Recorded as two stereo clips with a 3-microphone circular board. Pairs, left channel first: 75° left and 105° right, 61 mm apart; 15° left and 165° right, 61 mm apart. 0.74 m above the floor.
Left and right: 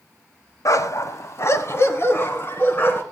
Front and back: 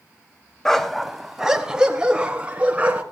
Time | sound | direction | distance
0.7 | a dog barking | 95° left | 1.1 m